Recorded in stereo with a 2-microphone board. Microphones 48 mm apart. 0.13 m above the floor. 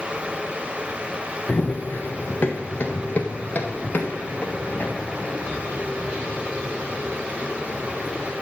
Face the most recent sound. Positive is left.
turn(degrees=35)  # may be behind; listen again after turning